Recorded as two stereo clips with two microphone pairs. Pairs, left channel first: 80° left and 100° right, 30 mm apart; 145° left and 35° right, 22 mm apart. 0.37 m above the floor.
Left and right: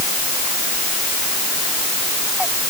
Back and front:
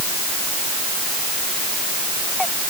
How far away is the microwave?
I don't hear a microwave.